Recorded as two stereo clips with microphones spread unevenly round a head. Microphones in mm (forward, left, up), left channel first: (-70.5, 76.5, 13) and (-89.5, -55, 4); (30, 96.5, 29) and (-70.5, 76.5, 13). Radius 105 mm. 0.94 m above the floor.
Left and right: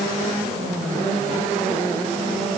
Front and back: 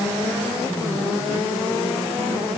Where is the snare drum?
I don't hear a snare drum.